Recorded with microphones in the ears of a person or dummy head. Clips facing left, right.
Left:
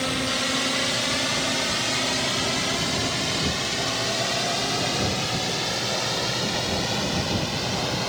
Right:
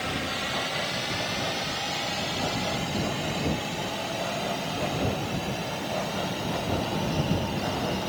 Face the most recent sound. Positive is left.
turn(degrees=75)  # may be behind; listen again after turning